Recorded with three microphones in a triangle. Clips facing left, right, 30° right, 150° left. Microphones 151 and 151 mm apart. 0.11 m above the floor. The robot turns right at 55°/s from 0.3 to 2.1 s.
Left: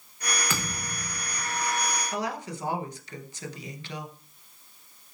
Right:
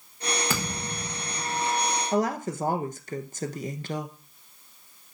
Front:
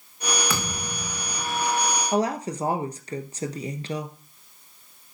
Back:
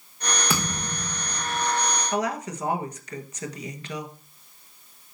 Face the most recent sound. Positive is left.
turn(degrees=-75)